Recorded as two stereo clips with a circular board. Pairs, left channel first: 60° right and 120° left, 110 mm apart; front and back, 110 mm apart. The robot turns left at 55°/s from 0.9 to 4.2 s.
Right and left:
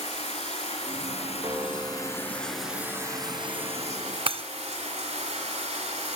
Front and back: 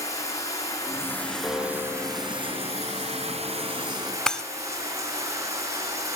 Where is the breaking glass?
85° left, 0.5 m.